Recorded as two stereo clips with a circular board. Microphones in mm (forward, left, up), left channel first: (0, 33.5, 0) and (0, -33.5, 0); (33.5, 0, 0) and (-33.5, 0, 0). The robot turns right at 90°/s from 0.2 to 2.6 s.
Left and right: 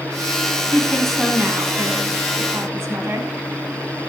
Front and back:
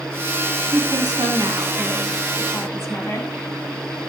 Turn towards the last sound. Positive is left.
turn(degrees=-45)